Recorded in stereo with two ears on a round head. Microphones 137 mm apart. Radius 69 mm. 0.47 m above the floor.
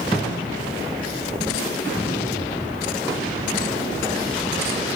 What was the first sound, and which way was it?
A cupboard door, 15° left (ahead or behind).